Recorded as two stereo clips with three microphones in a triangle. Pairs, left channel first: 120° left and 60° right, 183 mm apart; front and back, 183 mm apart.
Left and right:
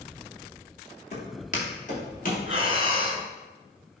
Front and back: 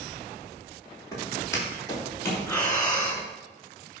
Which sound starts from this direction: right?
Breathing, at 2.5 s.